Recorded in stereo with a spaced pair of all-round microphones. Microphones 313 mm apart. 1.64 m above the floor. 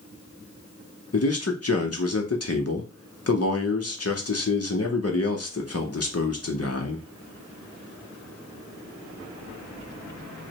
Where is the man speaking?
50° left (ahead or behind), 0.7 m.